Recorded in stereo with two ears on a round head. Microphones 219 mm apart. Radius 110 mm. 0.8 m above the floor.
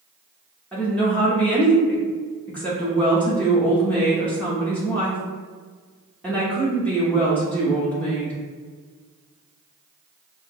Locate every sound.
0.7 s a woman speaking: 5° left (ahead or behind), 1.0 m